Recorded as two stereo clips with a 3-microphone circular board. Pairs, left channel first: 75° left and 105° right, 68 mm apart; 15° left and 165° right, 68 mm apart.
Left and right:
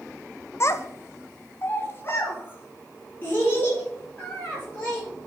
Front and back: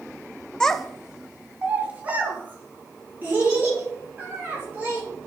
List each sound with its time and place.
0.6 s a child speaking: 90° left, 0.6 m; by 5.0 s 135° left, 5.5 m